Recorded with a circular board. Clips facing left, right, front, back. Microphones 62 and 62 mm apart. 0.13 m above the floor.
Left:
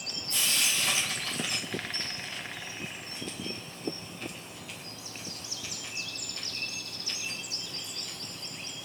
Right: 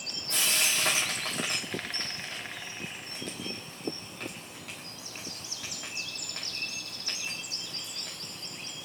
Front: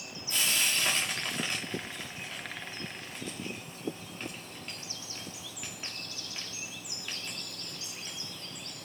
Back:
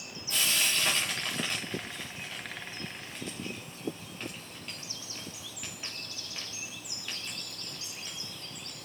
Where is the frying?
90° right, 3.5 m.